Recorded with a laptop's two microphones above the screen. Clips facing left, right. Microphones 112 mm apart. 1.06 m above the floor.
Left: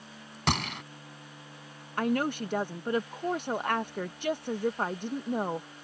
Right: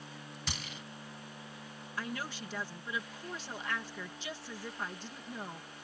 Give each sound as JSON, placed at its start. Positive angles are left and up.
{"t": 0.5, "sound": "a gunshot", "side_deg": 75}
{"t": 2.0, "sound": "a woman speaking", "side_deg": 55}